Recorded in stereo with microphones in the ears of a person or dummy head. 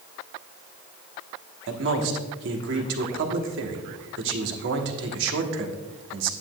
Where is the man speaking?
65° right (ahead or behind), 1.1 m.